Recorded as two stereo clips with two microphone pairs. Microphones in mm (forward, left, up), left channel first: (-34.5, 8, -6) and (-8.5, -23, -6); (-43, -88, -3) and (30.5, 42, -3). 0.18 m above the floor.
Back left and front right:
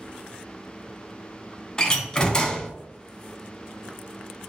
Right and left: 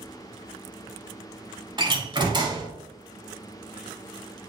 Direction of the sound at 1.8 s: 85° left.